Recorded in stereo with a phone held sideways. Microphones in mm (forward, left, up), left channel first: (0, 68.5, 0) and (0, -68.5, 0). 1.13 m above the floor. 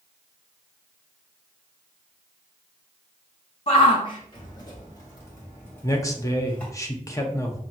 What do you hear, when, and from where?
3.7 s a shout: 45° left (ahead or behind), 1.2 m; by 6.7 s 10° left (ahead or behind), 2.5 m
5.8 s a man speaking: 20° left (ahead or behind), 0.7 m